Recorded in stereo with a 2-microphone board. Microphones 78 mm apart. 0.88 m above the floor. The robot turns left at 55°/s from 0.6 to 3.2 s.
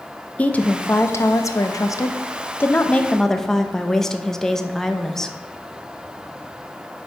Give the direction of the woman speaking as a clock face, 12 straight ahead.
7 o'clock.